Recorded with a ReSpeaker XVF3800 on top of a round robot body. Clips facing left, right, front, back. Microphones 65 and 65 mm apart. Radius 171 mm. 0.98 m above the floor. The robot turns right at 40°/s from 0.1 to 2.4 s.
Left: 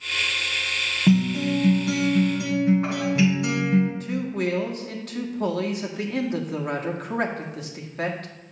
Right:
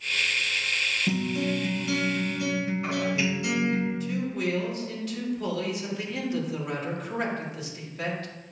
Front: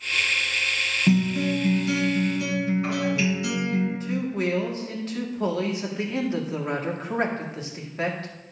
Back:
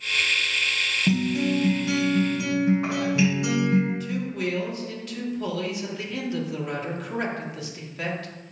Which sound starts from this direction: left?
A guitar, at 1.1 s.